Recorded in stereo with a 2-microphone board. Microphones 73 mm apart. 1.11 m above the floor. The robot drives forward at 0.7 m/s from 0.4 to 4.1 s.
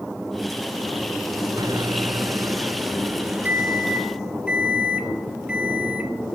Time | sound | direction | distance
1.6 | a microwave | 65° right (ahead or behind) | 0.7 m